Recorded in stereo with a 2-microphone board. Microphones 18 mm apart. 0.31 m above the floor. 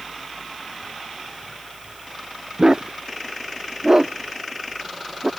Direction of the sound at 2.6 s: 40° right (ahead or behind).